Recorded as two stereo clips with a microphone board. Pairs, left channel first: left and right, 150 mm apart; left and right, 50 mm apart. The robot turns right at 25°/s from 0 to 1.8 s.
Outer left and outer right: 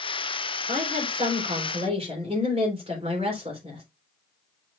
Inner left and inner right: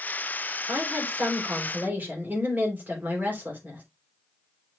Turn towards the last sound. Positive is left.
turn(degrees=-40)  # may be behind; listen again after turning